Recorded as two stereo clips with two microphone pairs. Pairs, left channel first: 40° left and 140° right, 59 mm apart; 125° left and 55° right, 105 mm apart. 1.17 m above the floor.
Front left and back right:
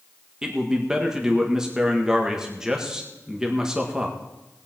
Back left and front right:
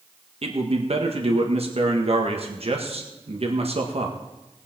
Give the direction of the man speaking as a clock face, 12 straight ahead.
2 o'clock.